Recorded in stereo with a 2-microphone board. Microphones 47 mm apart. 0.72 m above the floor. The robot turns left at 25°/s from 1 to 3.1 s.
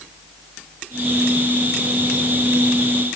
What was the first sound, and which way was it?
Only background noise.